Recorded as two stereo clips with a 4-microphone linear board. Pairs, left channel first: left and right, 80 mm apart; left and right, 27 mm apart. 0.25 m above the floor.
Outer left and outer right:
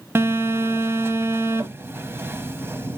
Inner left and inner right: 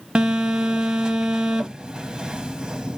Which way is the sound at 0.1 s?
30° right (ahead or behind).